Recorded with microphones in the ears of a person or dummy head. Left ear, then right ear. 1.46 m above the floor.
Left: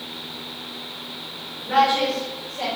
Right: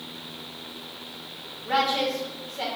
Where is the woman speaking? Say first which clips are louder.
Left 5 dB; 35° right (ahead or behind), 1.8 m; by 2.7 s 20° right (ahead or behind), 1.7 m.